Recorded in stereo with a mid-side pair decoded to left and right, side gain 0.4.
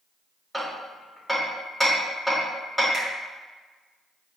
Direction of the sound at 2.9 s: 50° right.